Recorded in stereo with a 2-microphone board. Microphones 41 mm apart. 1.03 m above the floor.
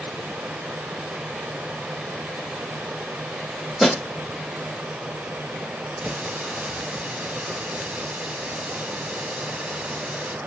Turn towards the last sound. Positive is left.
turn(degrees=-40)  # may be behind; listen again after turning